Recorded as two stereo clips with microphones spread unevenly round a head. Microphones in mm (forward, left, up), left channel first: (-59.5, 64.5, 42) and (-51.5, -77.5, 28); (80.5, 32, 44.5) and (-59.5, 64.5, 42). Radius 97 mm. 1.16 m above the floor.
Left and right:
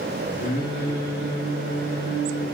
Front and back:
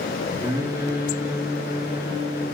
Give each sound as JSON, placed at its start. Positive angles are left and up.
{"t": 0.4, "sound": "singing", "azimuth_deg": 100, "distance_m": 1.2}